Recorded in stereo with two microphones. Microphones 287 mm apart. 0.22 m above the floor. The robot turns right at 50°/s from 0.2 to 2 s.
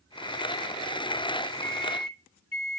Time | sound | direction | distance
1.6 | a microwave | 40° left (ahead or behind) | 1.3 m